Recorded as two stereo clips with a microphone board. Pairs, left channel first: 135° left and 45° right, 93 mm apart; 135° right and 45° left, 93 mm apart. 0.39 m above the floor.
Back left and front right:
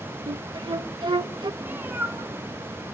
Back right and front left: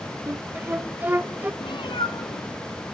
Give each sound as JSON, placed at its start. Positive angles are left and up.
{"t": 0.3, "sound": "a flute", "azimuth_deg": -20, "distance_m": 0.6}
{"t": 1.6, "sound": "a cat meowing", "azimuth_deg": -115, "distance_m": 0.9}